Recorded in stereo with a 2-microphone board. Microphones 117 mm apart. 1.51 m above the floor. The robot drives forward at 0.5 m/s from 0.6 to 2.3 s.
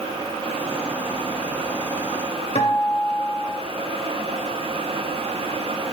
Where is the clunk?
I don't hear a clunk.